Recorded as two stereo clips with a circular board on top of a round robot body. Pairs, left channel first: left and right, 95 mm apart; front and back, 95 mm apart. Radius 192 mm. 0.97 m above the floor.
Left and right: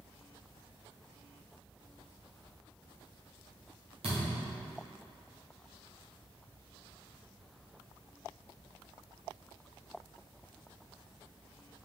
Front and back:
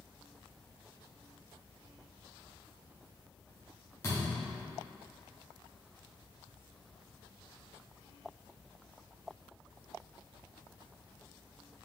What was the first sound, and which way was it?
A thud, 65° right.